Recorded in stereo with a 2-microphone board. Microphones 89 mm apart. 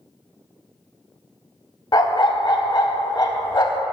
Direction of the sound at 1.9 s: 45° left (ahead or behind).